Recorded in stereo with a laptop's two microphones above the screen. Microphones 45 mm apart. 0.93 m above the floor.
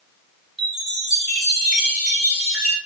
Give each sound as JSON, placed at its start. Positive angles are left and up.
{"t": 0.6, "sound": "a chime", "side_deg": -5, "distance_m": 1.2}